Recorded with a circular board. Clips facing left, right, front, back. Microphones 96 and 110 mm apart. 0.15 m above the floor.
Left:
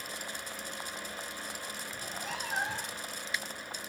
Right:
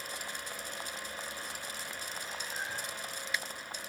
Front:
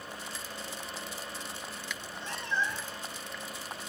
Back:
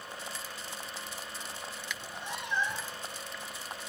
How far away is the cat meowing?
About 1.1 m.